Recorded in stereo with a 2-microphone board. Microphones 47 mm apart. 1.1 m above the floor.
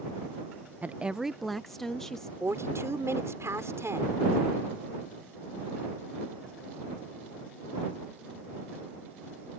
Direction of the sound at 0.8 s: 35° right (ahead or behind).